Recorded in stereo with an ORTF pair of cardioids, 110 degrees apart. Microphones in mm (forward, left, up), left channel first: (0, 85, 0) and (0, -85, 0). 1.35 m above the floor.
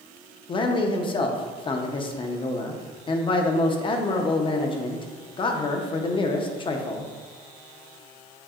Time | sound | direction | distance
0.5 | a man speaking | 30° left | 0.7 m